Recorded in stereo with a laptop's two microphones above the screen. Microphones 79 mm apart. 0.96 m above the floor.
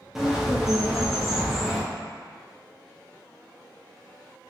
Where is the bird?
5° right (ahead or behind), 0.6 m.